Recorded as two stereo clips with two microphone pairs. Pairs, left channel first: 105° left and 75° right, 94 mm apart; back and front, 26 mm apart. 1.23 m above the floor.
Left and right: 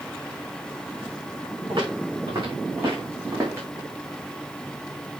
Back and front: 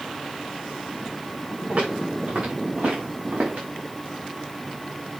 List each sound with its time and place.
1.7 s footsteps: 40° right, 7.5 m; by 3.7 s 15° right, 6 m